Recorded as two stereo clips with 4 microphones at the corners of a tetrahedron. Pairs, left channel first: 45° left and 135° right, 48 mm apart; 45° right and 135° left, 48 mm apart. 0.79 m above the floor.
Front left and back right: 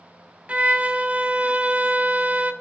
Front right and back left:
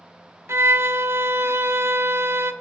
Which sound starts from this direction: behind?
A violin, at 0.5 s.